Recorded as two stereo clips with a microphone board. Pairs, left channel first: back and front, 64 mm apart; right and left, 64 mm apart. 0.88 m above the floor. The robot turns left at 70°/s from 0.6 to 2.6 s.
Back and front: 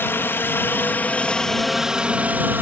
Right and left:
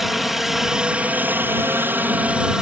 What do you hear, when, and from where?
0.0 s a helicopter: 175° left; by 2.6 s 20° left